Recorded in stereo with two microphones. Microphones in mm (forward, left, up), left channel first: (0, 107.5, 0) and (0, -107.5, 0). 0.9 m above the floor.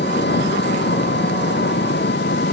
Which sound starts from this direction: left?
An engine running, at 0.0 s.